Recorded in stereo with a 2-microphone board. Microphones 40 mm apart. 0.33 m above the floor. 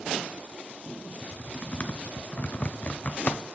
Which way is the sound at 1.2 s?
35° left (ahead or behind).